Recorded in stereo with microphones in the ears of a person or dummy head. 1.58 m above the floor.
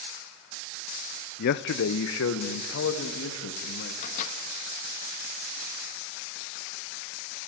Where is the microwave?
50° left (ahead or behind), 1.6 m.